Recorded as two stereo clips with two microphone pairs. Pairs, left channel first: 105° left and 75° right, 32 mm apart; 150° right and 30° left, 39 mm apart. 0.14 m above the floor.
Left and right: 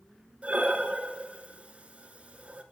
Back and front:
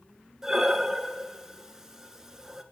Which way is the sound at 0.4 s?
40° right.